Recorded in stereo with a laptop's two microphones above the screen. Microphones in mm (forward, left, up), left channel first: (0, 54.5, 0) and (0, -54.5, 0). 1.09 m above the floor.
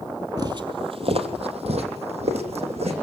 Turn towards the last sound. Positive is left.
turn(degrees=-70)  # may be behind; listen again after turning